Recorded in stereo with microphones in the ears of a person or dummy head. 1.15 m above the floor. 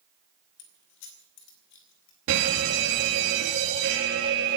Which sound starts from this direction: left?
Keys jangling, at 0.6 s.